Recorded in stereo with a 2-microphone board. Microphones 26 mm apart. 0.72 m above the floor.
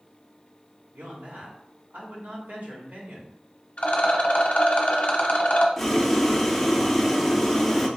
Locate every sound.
0.9 s a man speaking: 70° right (ahead or behind), 2 m
3.8 s a rattle: 50° left (ahead or behind), 0.9 m
5.8 s boiling: 5° left (ahead or behind), 0.7 m